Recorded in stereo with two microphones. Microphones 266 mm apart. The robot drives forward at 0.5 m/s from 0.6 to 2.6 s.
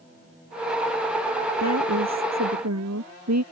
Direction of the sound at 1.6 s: 75° right (ahead or behind).